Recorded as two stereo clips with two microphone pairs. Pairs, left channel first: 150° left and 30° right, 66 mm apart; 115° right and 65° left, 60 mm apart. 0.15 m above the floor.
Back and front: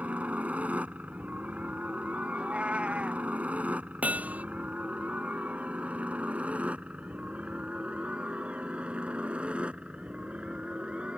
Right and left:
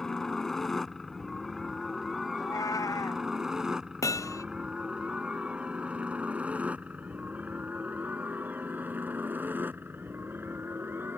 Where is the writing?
I don't hear writing.